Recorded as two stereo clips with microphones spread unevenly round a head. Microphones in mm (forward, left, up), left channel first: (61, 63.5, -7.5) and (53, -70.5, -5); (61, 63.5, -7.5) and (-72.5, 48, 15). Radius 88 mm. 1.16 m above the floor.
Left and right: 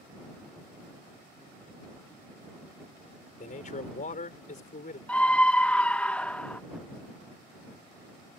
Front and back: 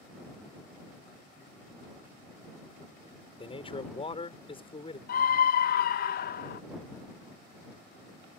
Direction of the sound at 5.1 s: 5° left.